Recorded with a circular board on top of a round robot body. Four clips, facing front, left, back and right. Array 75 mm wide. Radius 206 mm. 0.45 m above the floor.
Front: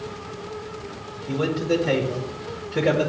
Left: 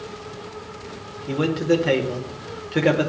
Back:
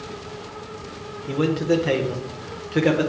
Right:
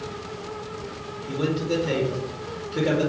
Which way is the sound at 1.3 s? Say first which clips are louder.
Left 5 dB, back 2 dB; 120° left.